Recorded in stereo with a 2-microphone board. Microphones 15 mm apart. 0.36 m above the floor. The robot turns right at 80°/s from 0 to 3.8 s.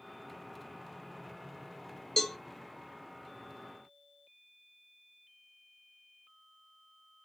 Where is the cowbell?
35° left (ahead or behind), 0.7 m.